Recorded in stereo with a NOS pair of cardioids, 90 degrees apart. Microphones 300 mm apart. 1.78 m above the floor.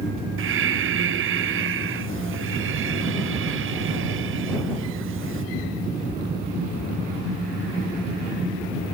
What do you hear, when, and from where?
0.4 s breathing: 45° right